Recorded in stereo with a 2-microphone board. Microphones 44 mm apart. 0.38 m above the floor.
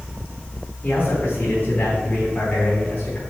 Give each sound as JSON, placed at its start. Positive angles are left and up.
{"t": 0.8, "sound": "a man speaking", "side_deg": 45, "distance_m": 3.5}